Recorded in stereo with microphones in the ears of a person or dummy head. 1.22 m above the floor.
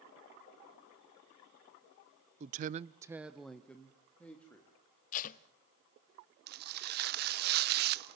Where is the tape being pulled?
40° left (ahead or behind), 0.9 m.